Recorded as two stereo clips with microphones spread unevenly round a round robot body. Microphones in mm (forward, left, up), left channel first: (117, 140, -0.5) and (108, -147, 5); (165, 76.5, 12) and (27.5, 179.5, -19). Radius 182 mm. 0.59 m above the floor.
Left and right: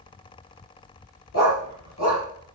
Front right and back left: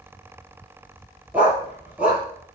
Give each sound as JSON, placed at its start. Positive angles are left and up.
{"t": 1.3, "sound": "a dog barking", "azimuth_deg": 60, "distance_m": 6.0}